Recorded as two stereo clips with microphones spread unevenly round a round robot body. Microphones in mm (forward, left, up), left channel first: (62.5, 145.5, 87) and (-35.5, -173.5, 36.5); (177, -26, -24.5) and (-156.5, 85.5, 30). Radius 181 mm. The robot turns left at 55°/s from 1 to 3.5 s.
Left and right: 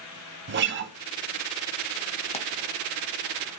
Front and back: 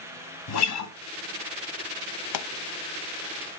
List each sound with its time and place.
0.5 s a guitar: 55° right, 1.4 m
2.3 s a pop: straight ahead, 0.6 m; by 2.5 s 10° right, 0.6 m